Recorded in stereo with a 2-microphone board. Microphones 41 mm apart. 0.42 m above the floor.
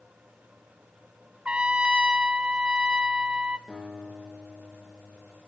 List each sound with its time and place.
1.4 s a trumpet: 30° right (ahead or behind), 0.5 m
3.7 s a guitar: 10° right (ahead or behind), 8 m